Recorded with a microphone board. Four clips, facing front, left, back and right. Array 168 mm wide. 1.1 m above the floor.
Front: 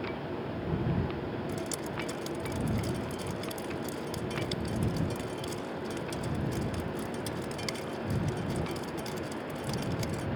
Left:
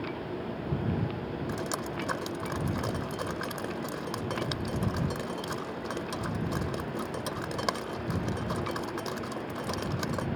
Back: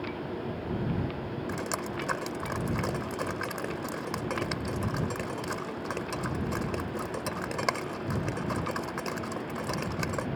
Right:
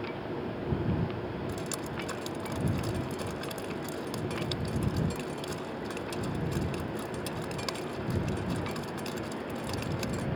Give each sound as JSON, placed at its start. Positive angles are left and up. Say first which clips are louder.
{"t": 1.5, "sound": "dripping", "louder": "left 2 dB, back 2 dB", "azimuth_deg": 145}